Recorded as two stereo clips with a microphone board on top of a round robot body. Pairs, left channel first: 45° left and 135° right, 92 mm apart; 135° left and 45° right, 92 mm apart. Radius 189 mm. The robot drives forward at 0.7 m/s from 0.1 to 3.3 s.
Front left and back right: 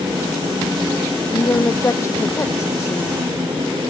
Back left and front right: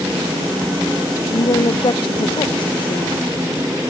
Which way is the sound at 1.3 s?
100° left.